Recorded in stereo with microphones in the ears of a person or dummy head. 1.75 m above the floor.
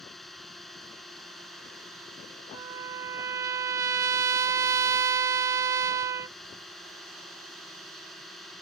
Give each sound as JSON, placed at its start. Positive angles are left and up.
{"t": 0.0, "sound": "a drone", "side_deg": 5}
{"t": 2.5, "sound": "a trumpet", "side_deg": -15}